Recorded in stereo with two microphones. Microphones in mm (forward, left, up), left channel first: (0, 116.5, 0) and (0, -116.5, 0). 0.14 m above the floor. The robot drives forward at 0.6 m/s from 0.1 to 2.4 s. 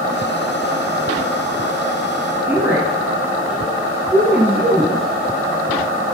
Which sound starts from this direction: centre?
A woman speaking, at 2.5 s.